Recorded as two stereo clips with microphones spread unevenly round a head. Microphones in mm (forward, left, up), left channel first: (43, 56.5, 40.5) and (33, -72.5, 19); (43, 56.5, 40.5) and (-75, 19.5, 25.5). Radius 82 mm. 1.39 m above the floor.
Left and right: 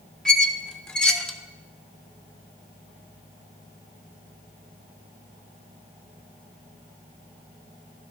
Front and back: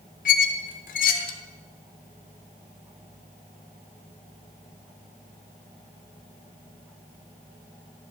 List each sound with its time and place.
0.2 s a squeak: 5° left, 0.6 m